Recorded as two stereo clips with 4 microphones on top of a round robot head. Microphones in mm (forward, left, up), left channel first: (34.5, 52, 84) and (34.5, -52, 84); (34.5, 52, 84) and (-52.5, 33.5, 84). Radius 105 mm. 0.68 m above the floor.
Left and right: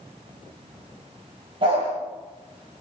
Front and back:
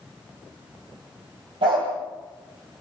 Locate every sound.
1.6 s a dog barking: 135° right, 7.5 m